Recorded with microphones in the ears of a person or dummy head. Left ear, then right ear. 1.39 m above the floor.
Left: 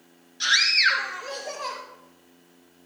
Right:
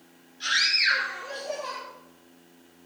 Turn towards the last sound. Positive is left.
turn(degrees=65)  # may be behind; listen again after turning